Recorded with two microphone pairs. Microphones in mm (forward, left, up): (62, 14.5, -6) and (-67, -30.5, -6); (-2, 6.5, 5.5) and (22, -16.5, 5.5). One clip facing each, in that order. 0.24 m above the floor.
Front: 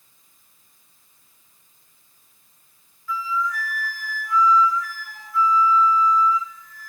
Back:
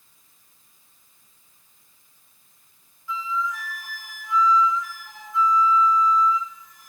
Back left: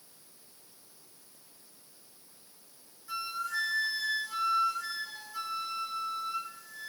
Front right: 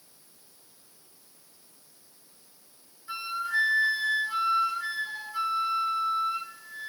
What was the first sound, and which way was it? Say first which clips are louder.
A flute: front 2 dB, front right 4 dB; 95° right.